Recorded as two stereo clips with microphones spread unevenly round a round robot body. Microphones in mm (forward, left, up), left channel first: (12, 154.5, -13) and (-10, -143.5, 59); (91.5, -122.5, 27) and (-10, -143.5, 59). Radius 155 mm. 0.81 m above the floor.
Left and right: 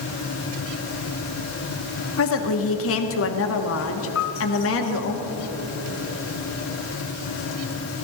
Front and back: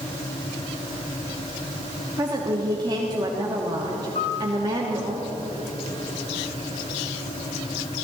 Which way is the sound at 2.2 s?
120° left.